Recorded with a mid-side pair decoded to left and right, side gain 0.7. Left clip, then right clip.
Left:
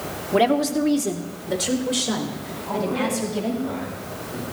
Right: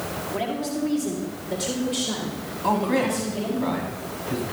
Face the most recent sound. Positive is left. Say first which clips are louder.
# right 3 dB
turn(degrees=-65)